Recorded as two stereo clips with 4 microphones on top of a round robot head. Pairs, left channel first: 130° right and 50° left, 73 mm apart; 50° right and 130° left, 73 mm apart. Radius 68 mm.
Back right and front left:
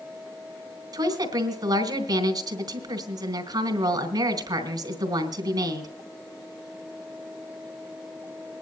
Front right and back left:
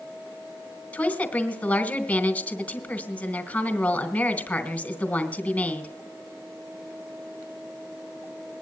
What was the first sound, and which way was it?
A woman speaking, 25° left.